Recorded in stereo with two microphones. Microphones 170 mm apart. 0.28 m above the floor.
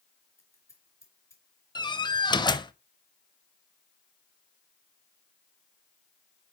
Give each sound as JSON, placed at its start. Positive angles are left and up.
{"t": 0.4, "sound": "scissors", "side_deg": 15, "distance_m": 3.5}
{"t": 1.8, "sound": "a door slam", "side_deg": 25, "distance_m": 0.6}